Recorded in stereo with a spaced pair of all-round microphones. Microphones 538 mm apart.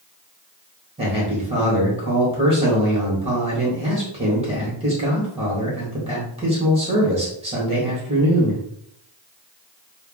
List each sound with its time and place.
1.0 s a man speaking: 10° right (ahead or behind), 1.6 m